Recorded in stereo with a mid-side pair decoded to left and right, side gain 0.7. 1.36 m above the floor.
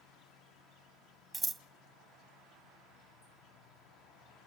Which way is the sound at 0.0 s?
65° left.